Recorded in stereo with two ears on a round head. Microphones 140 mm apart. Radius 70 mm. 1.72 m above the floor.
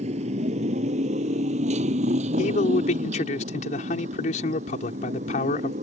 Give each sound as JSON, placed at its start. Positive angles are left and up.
{"t": 0.0, "sound": "a motorcycle", "side_deg": -40}
{"t": 2.4, "sound": "a man speaking", "side_deg": 50}